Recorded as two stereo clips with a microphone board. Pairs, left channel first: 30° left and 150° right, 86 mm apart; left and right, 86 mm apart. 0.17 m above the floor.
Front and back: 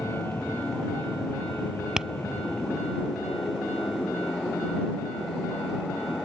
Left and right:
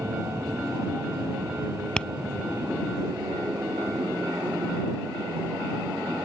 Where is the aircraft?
30° right.